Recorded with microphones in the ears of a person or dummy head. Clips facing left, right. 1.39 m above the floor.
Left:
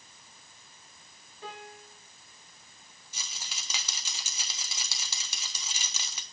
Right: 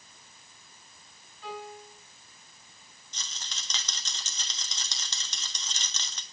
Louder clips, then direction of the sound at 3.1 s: Even; 10° left (ahead or behind).